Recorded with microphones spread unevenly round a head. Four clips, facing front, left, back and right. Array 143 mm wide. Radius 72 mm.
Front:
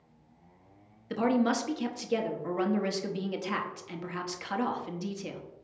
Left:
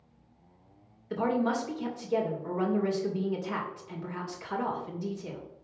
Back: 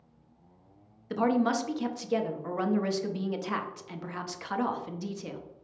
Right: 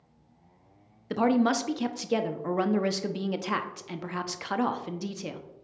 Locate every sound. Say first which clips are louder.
1.1 s a woman speaking: right 4 dB, back 1 dB; 95° right, 0.8 m